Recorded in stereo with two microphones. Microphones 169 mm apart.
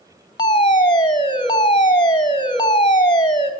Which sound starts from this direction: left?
A fire alarm, at 0.4 s.